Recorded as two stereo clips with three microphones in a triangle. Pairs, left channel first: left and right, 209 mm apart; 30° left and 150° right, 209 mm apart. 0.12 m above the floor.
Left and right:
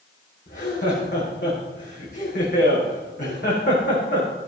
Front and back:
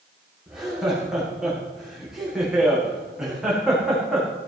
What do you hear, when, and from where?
0.5 s laughter: 120° left, 7.5 m